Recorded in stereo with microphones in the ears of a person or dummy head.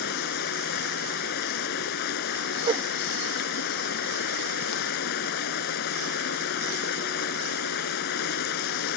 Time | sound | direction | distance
0.0 | running water | 55° left (ahead or behind) | ?
2.7 | a whoosh | 20° right (ahead or behind) | ?